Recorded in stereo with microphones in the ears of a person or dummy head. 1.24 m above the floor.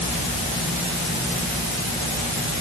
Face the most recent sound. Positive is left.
No sound to turn to.